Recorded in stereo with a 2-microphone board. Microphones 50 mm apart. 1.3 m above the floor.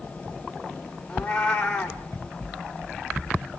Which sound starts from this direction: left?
A cat meowing, at 1.1 s.